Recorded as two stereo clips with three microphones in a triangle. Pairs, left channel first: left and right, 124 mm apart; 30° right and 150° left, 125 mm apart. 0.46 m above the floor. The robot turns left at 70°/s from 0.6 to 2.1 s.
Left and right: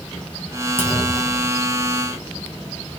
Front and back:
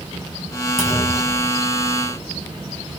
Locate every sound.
0.8 s a clunk: 65° left, 1.6 m; by 1.5 s 10° left, 1.6 m